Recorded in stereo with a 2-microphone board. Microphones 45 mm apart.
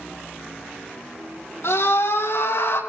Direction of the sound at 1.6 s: 70° left (ahead or behind).